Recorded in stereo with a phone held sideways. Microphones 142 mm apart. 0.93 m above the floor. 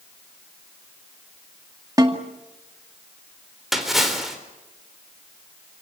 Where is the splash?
Centre (ahead or behind), 4 m.